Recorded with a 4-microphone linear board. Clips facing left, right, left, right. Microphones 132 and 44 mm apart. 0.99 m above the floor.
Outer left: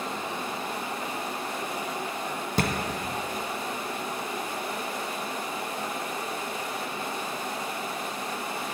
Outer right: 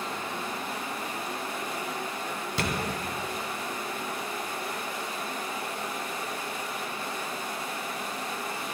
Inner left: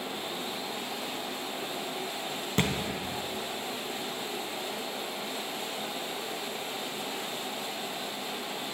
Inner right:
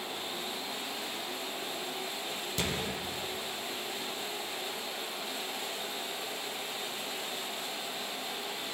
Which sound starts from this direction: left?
A thud, at 2.6 s.